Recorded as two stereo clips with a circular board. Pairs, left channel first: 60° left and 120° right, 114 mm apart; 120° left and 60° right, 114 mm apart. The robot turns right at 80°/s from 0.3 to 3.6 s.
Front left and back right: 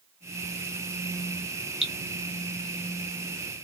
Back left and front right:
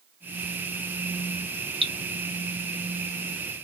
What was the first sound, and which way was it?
Dripping, 35° right.